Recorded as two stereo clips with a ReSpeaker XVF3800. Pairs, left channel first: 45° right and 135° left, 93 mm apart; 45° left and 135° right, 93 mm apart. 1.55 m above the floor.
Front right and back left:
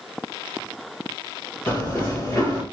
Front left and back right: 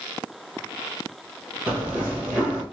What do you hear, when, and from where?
1.7 s running footsteps: 75° right, 1.7 m